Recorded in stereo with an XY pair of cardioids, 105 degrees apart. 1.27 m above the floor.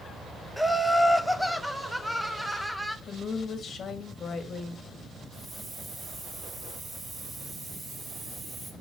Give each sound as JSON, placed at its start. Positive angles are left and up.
{"t": 0.6, "sound": "laughter", "azimuth_deg": 0, "distance_m": 0.9}
{"t": 3.1, "sound": "a woman speaking", "azimuth_deg": 45, "distance_m": 1.9}
{"t": 5.3, "sound": "a hiss", "azimuth_deg": -35, "distance_m": 2.5}